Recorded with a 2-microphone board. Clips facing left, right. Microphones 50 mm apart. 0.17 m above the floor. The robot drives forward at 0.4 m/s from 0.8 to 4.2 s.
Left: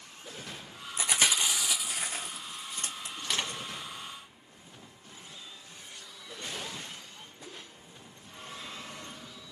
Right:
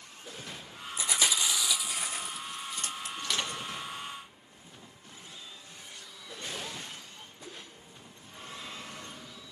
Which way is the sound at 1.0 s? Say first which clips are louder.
Left 2 dB; 70° left (ahead or behind).